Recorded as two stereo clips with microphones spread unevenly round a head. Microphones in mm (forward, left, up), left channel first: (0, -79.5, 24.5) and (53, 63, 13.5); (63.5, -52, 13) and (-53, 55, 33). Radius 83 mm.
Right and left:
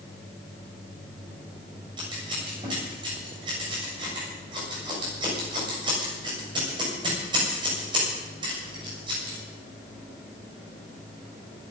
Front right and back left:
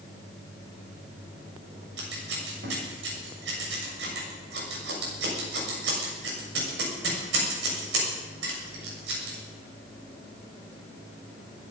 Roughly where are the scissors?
Behind left.